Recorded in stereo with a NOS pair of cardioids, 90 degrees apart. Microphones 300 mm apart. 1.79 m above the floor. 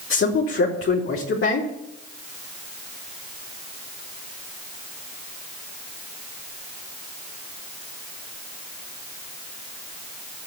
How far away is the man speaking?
About 4.5 m.